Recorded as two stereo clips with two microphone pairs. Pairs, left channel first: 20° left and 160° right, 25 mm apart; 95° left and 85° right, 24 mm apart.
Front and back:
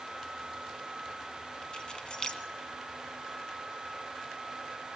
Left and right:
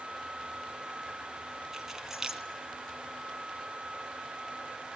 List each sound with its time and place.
1.7 s keys jangling: 15° right, 1.7 m